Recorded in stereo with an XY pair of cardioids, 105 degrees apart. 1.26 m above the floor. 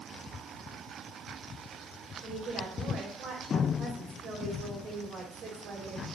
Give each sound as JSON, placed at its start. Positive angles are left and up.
{"t": 2.2, "sound": "a woman speaking", "azimuth_deg": -50, "distance_m": 4.5}